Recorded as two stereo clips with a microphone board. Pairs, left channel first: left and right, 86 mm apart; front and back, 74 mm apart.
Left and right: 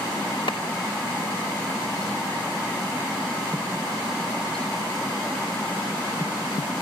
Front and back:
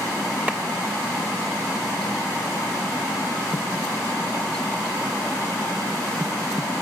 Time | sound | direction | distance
0.5 | a clap | 110° left | 2.5 m